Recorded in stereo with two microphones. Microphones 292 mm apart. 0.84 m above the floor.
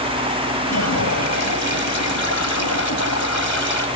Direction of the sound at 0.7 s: 70° left (ahead or behind).